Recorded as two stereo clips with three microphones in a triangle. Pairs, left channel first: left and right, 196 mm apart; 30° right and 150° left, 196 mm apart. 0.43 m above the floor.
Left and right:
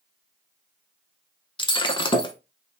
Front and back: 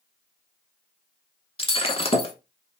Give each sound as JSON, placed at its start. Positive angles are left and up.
{"t": 1.6, "sound": "breaking glass", "azimuth_deg": 25, "distance_m": 0.6}